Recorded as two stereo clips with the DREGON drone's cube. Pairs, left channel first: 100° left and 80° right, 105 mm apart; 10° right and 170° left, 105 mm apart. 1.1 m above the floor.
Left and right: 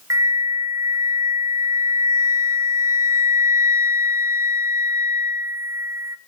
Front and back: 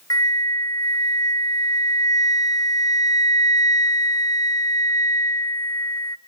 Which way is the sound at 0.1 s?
40° right.